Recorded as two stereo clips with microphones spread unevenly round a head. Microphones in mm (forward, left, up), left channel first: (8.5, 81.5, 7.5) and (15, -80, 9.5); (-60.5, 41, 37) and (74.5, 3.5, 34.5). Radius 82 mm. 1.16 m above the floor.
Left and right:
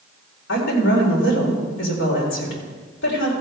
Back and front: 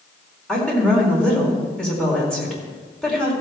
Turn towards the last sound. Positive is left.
turn(degrees=80)